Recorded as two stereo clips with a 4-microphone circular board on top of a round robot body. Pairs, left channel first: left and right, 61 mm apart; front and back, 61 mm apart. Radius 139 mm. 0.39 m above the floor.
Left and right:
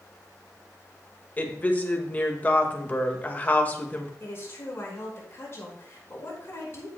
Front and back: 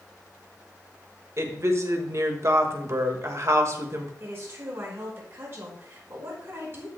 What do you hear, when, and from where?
1.4 s a woman speaking: 150° left, 1.8 m
4.2 s a woman speaking: 135° left, 5 m